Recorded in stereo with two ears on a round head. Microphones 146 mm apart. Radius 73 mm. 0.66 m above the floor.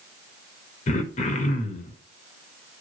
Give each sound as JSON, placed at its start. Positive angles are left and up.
{"t": 0.9, "sound": "throat clearing", "side_deg": 45, "distance_m": 0.6}